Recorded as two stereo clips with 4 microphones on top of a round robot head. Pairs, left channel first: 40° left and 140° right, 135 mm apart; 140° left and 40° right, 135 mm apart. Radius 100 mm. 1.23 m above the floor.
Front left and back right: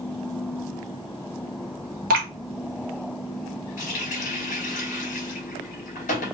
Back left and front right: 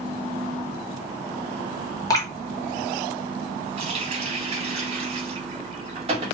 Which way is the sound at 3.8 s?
10° left.